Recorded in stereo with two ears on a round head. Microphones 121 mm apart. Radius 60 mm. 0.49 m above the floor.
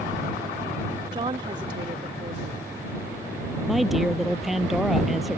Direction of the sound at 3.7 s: Centre (ahead or behind).